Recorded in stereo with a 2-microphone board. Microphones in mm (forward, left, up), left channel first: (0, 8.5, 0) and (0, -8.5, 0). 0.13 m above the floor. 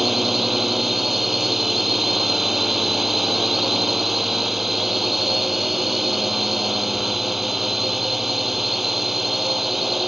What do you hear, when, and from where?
0.0 s a drone: 10° right (ahead or behind)